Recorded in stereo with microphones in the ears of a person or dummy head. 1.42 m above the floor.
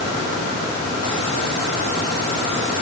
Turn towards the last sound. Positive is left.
No sound to turn to.